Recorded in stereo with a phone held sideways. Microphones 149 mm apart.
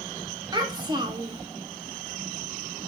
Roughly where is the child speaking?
Right.